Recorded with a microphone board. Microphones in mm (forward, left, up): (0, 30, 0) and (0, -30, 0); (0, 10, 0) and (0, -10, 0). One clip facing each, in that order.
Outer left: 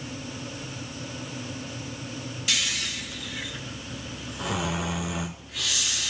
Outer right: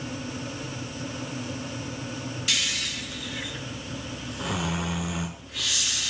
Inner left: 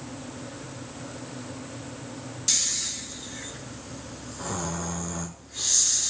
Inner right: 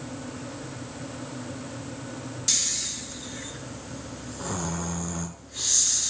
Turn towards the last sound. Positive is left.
turn(degrees=0)  # may be behind; listen again after turning